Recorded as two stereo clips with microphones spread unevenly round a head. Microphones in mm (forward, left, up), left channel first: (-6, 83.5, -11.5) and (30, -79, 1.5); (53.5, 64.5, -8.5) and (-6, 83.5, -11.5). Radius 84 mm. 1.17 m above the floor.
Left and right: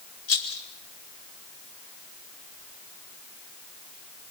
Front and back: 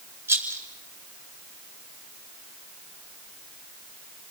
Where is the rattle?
110° left, 6 m.